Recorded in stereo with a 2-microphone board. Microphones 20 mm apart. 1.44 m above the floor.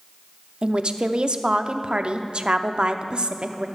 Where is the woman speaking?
55° right (ahead or behind), 0.6 m.